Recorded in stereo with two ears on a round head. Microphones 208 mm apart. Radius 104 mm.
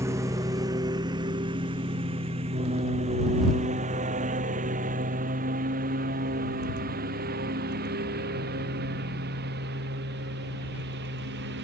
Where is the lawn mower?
15° right (ahead or behind); by 11.6 s 50° right (ahead or behind).